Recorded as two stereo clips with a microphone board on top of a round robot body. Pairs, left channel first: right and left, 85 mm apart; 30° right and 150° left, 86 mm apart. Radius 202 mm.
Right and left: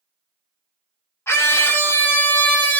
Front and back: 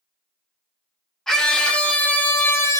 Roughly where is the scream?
Behind right.